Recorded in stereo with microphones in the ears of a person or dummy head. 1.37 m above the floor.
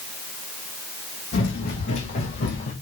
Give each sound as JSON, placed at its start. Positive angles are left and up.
{"t": 1.3, "sound": "running footsteps", "side_deg": 50, "distance_m": 4.0}